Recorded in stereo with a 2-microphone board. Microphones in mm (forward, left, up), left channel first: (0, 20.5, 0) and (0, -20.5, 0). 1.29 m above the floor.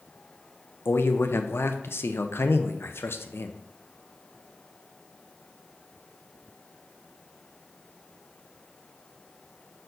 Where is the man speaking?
75° left (ahead or behind), 0.6 m.